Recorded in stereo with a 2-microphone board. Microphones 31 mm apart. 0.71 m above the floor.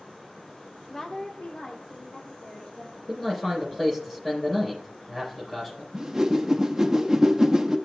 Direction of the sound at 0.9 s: 10° left (ahead or behind).